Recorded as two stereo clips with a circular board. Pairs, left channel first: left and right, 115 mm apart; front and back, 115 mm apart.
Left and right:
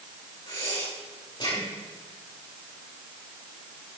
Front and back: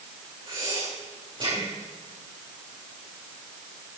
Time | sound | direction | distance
0.5 | breathing | 140° left | 6 m